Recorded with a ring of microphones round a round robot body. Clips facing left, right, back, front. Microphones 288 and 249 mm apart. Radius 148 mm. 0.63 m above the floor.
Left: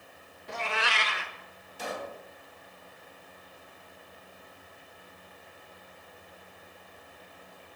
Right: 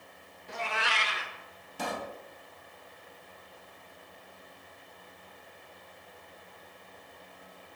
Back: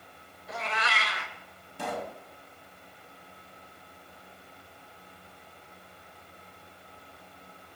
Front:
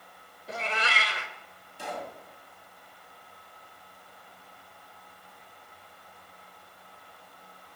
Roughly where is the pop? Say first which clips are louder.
Right 1 dB, back 3 dB; behind right.